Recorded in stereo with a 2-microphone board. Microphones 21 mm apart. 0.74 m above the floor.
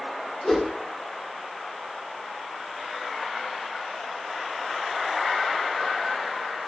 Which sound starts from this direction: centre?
A whoosh, at 0.4 s.